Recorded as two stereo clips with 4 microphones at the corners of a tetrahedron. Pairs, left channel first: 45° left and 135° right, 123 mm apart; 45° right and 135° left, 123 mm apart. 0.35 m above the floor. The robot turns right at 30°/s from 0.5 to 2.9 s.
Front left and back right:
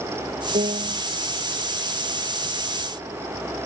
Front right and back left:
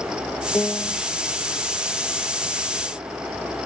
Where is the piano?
130° right; by 1.0 s 115° right.